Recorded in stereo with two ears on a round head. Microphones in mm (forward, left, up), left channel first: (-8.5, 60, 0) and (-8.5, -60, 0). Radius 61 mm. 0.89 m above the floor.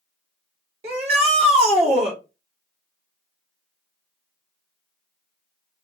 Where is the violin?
I don't hear a violin.